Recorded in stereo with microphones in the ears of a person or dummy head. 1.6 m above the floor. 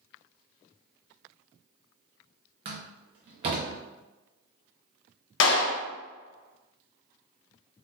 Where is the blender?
No blender in this recording.